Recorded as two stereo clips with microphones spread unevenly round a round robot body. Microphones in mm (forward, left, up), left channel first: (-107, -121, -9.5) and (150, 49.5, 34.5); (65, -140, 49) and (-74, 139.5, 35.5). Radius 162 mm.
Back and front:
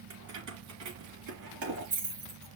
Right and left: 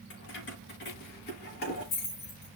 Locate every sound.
0.1 s keys jangling: 10° right, 3.5 m; by 2.5 s 5° left, 4.5 m